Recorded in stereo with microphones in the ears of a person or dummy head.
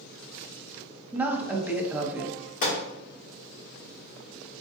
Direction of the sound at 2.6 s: 45° left (ahead or behind).